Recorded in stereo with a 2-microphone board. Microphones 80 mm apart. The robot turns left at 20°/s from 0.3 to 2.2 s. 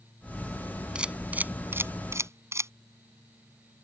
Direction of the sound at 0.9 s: 10° right (ahead or behind).